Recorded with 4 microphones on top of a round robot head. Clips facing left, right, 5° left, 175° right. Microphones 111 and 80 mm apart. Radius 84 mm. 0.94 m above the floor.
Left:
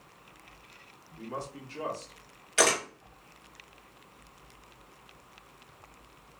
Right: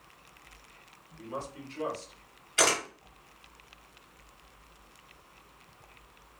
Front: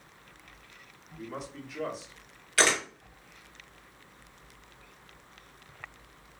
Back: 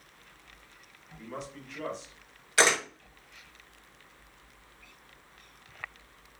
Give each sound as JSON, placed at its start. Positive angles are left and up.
{"t": 1.2, "sound": "a man speaking", "azimuth_deg": 85, "distance_m": 1.1}
{"t": 2.6, "sound": "a camera shutter", "azimuth_deg": 120, "distance_m": 0.9}